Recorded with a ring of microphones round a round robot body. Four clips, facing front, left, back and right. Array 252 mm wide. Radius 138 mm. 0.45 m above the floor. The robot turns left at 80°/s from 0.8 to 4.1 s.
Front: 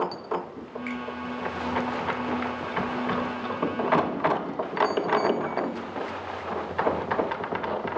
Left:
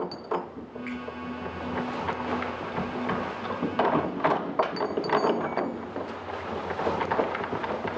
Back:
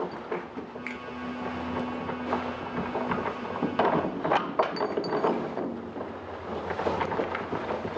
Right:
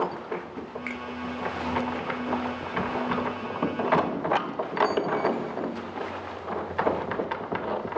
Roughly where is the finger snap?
Right.